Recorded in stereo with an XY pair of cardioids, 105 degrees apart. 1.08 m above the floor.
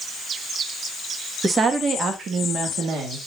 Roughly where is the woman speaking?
Ahead right.